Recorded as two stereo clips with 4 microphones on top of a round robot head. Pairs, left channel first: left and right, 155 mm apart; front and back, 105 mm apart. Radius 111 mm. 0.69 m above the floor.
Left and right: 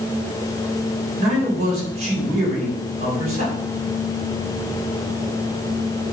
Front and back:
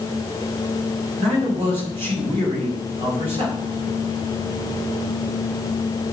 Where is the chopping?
No chopping in this recording.